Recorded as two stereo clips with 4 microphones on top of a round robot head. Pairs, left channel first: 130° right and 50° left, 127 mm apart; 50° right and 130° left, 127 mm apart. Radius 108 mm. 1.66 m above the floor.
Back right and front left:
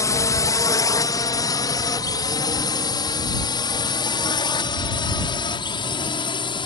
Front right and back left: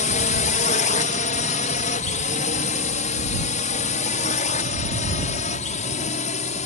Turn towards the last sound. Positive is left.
turn(degrees=-80)